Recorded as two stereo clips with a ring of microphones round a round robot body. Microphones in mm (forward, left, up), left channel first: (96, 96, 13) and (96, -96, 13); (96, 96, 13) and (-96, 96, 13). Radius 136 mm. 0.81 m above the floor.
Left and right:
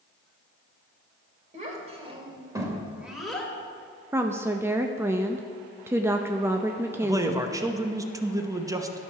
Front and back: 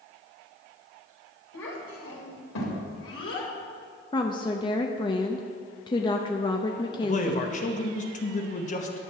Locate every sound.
1.5 s a child speaking: 40° right, 3 m; by 3.5 s 5° left, 2.5 m
4.1 s a woman speaking: 30° right, 0.5 m
7.0 s a man speaking: 25° right, 0.9 m